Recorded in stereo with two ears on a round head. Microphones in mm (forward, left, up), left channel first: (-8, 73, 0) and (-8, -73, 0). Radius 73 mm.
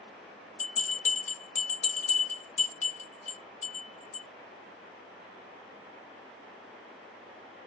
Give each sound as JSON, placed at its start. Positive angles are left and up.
{"t": 0.6, "sound": "a bell", "side_deg": 45, "distance_m": 1.2}